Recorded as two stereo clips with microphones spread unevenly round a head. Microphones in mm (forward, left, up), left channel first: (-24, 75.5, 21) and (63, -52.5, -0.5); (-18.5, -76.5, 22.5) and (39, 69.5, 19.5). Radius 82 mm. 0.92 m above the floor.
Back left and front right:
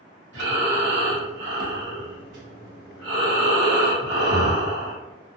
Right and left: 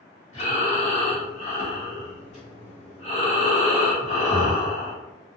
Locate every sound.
0.3 s breathing: 60° right, 1.5 m